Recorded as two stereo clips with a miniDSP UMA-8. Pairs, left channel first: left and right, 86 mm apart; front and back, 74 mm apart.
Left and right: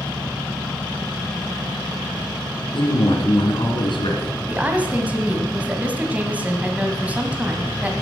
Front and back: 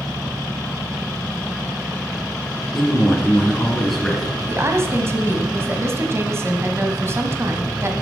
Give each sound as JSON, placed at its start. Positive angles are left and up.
{"t": 2.7, "sound": "a man speaking", "azimuth_deg": 90, "distance_m": 2.5}
{"t": 4.5, "sound": "a woman speaking", "azimuth_deg": -155, "distance_m": 1.5}